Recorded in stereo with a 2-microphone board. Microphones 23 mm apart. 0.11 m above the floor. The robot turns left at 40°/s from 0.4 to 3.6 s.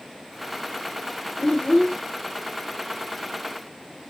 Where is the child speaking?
50° left (ahead or behind), 1.8 m; by 2.0 s 35° left (ahead or behind), 1.8 m.